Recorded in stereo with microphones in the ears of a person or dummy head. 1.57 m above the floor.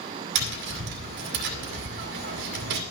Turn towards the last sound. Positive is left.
turn(degrees=-60)  # may be behind; listen again after turning